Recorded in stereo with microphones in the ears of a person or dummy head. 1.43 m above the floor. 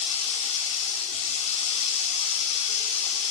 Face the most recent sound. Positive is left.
turn(degrees=35)  # may be behind; listen again after turning